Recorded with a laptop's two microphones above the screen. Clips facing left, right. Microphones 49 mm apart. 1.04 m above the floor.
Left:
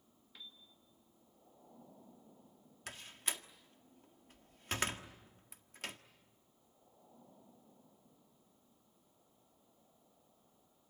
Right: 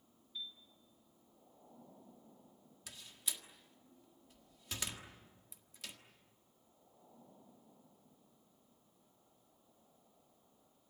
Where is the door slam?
50° left (ahead or behind), 1.6 m.